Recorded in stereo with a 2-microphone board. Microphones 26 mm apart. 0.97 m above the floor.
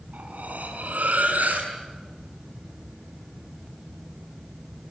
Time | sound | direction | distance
0.1 | cutlery clinking | 85° right | 6.5 m